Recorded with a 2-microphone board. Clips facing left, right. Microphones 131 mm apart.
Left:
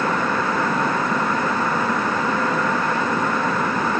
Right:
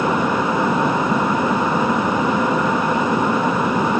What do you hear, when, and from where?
Only background noise.